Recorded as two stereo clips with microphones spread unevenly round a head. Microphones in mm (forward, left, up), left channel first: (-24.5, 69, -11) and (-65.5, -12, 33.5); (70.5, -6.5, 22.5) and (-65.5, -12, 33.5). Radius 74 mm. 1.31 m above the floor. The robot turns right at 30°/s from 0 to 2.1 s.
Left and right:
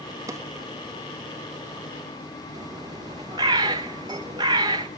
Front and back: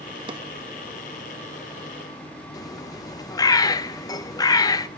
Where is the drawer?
130° right, 0.9 m; by 0.4 s 125° right, 0.9 m.